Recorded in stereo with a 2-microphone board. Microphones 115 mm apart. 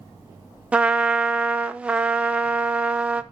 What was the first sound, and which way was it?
A trumpet, 10° right (ahead or behind).